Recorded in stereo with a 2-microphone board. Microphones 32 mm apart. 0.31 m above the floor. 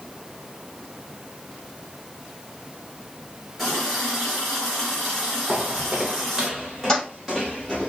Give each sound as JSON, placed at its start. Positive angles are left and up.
{"t": 3.6, "sound": "a running tap", "side_deg": 5, "distance_m": 3.0}
{"t": 5.5, "sound": "footsteps", "side_deg": -40, "distance_m": 0.6}
{"t": 6.9, "sound": "a toilet flushing", "side_deg": 15, "distance_m": 3.0}